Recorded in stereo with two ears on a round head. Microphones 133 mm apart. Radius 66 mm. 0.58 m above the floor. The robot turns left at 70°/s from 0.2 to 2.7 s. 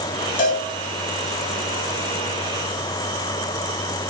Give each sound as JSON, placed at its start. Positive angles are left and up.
{"t": 0.4, "sound": "a cowbell", "side_deg": 60, "distance_m": 3.5}